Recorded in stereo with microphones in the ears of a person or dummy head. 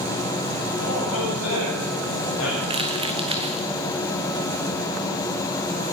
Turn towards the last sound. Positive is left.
turn(degrees=-35)  # may be behind; listen again after turning